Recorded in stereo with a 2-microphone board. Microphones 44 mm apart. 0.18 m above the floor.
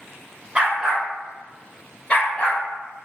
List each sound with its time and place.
0.6 s a dog barking: 25° right (ahead or behind), 0.8 m; by 2.6 s 30° left (ahead or behind), 1.3 m